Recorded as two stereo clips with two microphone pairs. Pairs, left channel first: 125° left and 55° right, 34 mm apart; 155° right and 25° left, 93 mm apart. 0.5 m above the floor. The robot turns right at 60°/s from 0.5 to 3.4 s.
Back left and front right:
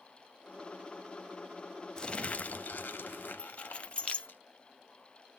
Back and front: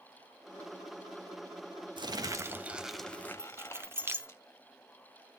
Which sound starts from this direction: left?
Keys jangling, at 3.4 s.